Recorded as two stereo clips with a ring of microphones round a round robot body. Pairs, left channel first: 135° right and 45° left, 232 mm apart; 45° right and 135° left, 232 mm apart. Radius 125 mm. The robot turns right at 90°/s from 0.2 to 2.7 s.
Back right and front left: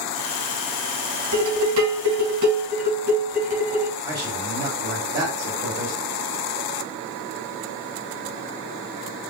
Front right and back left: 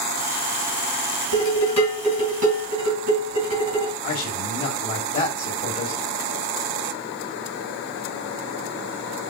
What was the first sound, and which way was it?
Dishes clattering, 5° right.